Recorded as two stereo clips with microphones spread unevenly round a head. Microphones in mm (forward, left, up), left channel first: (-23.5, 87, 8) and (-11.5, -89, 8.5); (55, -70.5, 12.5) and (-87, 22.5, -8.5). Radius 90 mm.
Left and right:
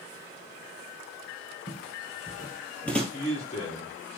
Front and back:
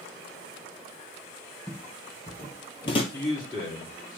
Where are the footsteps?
60° left, 1.7 m; by 3.0 s 10° left, 1.7 m.